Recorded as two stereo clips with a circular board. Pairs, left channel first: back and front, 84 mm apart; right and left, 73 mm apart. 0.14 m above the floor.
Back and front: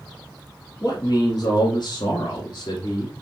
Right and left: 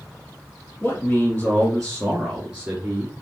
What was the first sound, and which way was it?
A man speaking, 150° right.